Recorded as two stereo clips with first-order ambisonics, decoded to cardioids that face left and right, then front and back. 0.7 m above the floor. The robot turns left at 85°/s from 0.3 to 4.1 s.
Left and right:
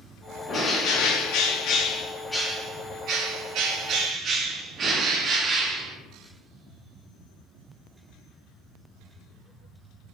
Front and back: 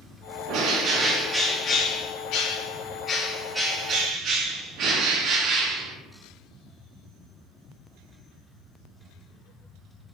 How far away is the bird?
About 0.6 m.